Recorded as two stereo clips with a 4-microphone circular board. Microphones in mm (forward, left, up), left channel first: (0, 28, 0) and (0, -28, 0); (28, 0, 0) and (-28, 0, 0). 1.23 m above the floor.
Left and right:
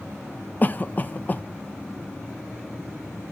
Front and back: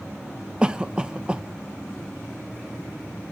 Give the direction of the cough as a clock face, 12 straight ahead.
8 o'clock.